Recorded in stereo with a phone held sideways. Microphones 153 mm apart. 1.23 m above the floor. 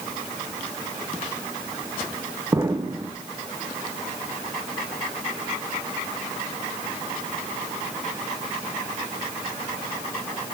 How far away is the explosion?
About 0.8 m.